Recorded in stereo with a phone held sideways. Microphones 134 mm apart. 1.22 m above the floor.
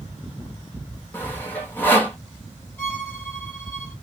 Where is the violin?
15° left (ahead or behind), 2 m.